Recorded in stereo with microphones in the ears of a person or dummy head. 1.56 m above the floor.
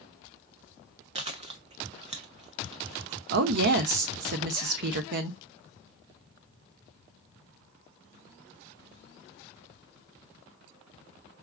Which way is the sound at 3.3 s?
60° right (ahead or behind).